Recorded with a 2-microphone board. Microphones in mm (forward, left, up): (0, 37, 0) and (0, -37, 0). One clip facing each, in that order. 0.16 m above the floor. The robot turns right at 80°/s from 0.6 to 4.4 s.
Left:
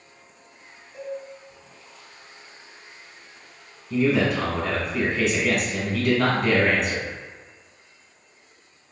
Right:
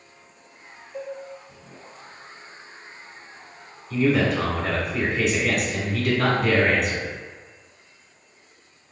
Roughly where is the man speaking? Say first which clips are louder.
Even; centre.